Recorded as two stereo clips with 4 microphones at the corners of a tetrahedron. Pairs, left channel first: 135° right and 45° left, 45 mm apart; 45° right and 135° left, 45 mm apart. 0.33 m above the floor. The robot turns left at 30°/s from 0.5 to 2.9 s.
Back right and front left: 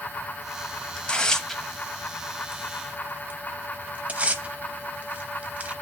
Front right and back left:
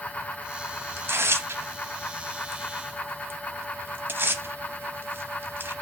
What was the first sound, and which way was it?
Tearing paper, 160° left.